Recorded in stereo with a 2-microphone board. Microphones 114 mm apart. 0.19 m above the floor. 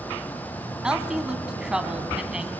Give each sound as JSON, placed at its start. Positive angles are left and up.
{"t": 0.8, "sound": "a woman speaking", "side_deg": -5, "distance_m": 1.6}